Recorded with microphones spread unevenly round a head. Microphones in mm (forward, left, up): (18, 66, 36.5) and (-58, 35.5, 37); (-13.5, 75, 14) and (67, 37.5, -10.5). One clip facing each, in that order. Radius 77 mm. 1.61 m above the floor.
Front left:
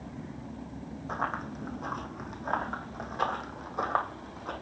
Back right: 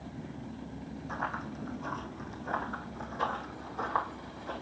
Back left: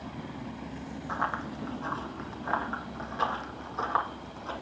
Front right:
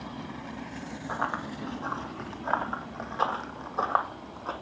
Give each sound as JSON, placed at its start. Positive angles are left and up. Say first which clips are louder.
{"t": 1.1, "sound": "running footsteps", "louder": "front left 3 dB, even", "azimuth_deg": 55, "distance_m": 3.5}